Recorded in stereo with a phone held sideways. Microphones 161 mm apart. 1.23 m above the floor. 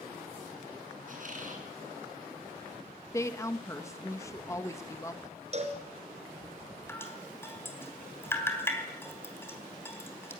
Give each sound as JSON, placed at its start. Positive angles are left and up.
{"t": 1.1, "sound": "a squeak", "side_deg": -55, "distance_m": 7.0}
{"t": 3.1, "sound": "a woman speaking", "side_deg": 20, "distance_m": 1.8}
{"t": 5.5, "sound": "a cowbell", "side_deg": -45, "distance_m": 4.0}
{"t": 6.9, "sound": "dripping", "side_deg": 15, "distance_m": 3.5}